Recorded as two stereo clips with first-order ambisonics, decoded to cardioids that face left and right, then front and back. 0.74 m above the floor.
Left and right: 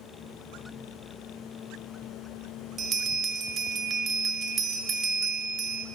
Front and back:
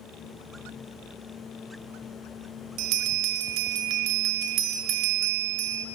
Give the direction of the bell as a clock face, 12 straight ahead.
5 o'clock.